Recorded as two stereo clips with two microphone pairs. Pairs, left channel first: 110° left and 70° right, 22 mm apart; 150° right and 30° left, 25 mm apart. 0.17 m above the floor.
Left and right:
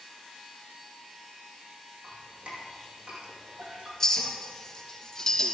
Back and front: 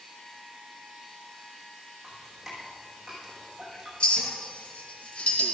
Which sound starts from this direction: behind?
A clink, at 4.0 s.